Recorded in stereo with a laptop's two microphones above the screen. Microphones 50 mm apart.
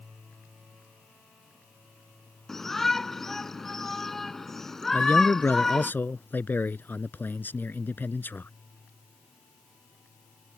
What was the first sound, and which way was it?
A shout, 10° left (ahead or behind).